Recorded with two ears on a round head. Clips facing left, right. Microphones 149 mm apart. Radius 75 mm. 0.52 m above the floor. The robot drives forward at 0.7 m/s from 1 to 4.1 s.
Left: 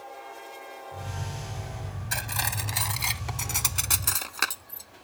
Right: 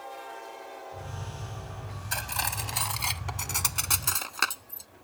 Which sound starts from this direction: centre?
Cutlery clinking, at 2.1 s.